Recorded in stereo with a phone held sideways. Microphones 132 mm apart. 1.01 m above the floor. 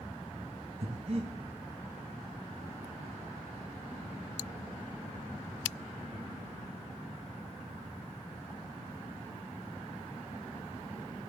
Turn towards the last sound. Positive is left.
turn(degrees=-50)  # may be behind; listen again after turning